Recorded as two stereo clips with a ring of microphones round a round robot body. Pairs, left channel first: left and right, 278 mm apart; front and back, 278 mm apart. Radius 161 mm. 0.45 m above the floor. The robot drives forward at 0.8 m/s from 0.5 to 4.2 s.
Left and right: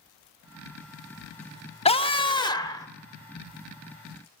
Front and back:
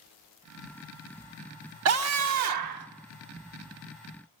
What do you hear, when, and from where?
1.9 s a scream: 155° left, 1.2 m; by 2.9 s 165° left, 1.9 m